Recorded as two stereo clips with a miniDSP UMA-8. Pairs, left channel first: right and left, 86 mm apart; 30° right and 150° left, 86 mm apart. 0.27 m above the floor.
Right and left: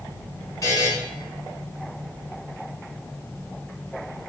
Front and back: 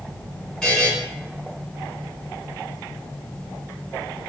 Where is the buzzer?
100° right, 1.3 m.